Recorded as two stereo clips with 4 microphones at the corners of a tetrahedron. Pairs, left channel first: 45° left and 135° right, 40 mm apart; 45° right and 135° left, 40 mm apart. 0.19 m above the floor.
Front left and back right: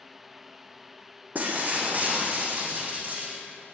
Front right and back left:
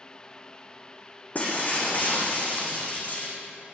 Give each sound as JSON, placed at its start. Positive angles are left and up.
{"t": 1.4, "sound": "breaking glass", "azimuth_deg": -90, "distance_m": 3.0}